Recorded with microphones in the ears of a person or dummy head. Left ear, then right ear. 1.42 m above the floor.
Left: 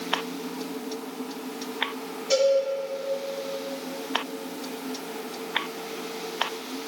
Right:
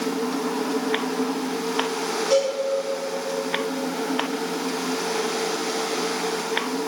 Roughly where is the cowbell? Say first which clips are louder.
Even; centre.